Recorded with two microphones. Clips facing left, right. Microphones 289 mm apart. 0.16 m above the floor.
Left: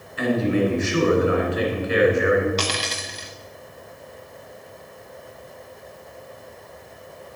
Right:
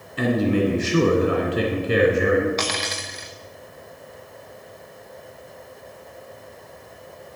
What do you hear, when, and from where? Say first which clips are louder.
0.2 s a man speaking: right 1 dB; 45° right (ahead or behind), 2 m
2.6 s a dropped coin: even; 40° left (ahead or behind), 1.9 m